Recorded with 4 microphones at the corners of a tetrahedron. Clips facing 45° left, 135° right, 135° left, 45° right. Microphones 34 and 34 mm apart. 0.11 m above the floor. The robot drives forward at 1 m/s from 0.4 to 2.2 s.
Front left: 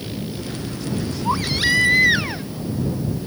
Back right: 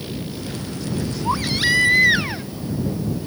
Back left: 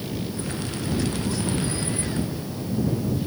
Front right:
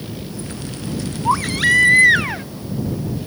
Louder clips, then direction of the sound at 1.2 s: Even, front right 10 dB; 40° right.